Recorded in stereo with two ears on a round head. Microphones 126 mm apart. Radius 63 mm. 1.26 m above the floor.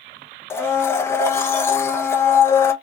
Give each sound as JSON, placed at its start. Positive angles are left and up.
{"t": 0.5, "sound": "a blender", "side_deg": 15, "distance_m": 0.6}